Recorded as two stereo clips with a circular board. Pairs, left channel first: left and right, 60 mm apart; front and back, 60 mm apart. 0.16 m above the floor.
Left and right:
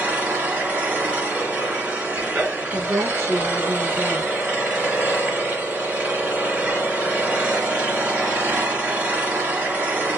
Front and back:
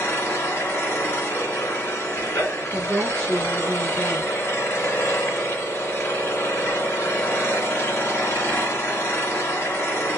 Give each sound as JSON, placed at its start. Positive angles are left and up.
{"t": 0.0, "sound": "an engine running", "azimuth_deg": -35, "distance_m": 1.7}
{"t": 2.7, "sound": "a woman speaking", "azimuth_deg": -65, "distance_m": 1.3}